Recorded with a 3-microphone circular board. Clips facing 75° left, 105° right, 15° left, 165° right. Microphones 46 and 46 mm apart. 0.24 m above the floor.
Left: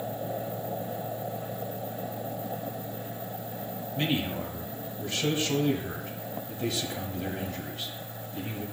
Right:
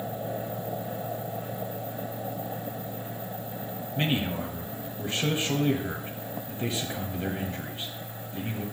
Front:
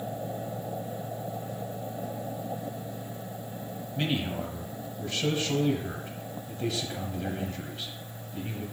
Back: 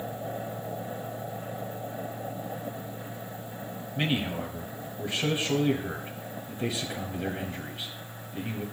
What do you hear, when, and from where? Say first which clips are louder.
4.0 s a man speaking: right 1 dB, back 1 dB; 120° right, 1.1 m